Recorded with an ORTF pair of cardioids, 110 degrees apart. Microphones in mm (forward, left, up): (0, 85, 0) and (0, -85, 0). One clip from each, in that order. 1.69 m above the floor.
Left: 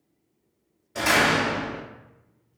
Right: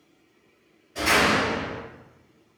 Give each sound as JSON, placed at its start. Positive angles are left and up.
{"t": 0.9, "sound": "a door slam", "azimuth_deg": 50, "distance_m": 1.8}